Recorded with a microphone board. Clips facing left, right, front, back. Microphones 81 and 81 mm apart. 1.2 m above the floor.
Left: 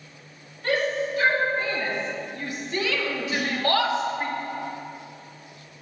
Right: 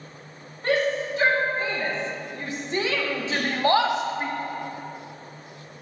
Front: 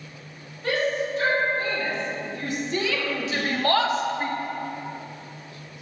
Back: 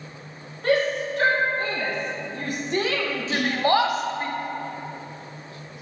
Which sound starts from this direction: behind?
Whispering, at 3.3 s.